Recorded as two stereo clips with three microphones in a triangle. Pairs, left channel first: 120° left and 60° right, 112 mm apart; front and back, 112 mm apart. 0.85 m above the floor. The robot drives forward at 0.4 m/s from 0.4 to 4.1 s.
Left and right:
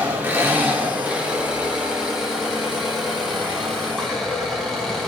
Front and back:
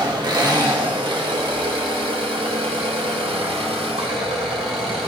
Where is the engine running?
130° right, 1.7 m; by 5.1 s 155° right, 3 m.